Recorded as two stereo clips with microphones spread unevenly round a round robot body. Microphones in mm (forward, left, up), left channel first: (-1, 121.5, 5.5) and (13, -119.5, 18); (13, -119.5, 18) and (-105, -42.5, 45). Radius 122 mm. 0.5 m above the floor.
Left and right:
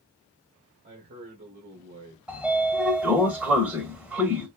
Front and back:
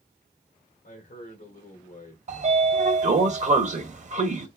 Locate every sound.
0.8 s a man speaking: 30° right, 2.5 m
2.3 s a sliding door: 170° right, 1.0 m